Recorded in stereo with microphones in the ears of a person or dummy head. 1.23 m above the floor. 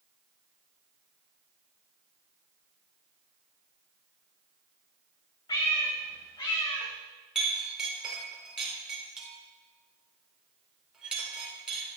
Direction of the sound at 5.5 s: 25° left (ahead or behind).